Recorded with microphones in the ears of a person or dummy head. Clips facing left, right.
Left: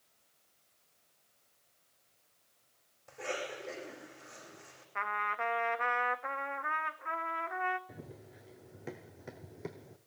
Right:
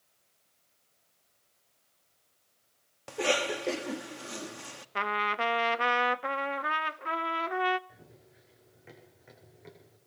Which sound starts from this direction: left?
Running footsteps, at 7.9 s.